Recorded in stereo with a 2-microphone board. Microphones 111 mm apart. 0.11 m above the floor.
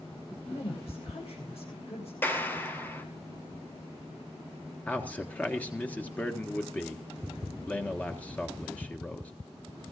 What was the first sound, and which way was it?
A woman speaking, 65° left (ahead or behind).